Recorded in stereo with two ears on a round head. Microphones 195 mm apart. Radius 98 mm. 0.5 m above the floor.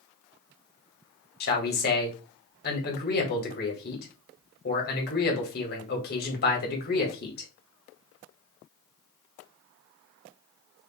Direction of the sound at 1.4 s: 45° left (ahead or behind).